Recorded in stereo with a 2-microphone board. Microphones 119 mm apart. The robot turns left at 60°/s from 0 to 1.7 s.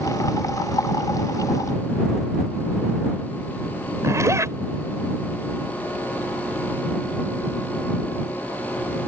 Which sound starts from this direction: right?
A zipper, at 4.0 s.